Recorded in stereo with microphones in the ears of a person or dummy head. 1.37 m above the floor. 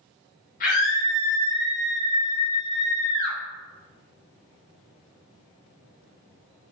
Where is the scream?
55° left (ahead or behind), 4.5 m; by 3.4 s 40° left (ahead or behind), 6.5 m.